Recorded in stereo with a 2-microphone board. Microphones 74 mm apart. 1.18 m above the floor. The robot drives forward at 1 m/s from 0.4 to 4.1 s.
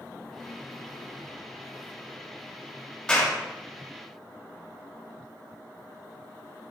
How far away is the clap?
About 6.5 m.